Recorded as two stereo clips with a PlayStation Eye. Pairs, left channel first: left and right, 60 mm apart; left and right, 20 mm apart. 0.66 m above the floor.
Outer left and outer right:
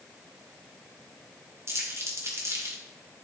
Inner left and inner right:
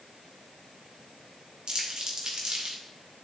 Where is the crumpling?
50° right (ahead or behind), 2 m.